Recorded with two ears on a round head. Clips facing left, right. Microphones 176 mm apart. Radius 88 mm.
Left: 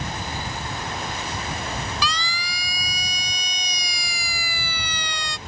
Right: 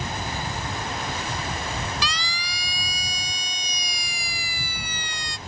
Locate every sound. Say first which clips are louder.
2.0 s a siren: left 3 dB; 75° left (ahead or behind); by 5.4 s 55° left (ahead or behind)